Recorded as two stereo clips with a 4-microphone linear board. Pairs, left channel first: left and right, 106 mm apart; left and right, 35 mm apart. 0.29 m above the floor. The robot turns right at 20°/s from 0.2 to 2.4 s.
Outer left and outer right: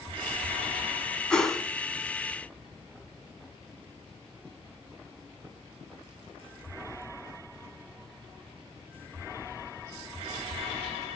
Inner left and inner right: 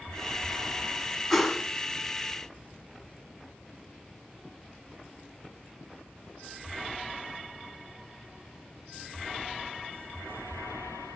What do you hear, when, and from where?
1.3 s a whoosh: 10° left (ahead or behind), 0.9 m; by 1.6 s centre (ahead or behind), 0.9 m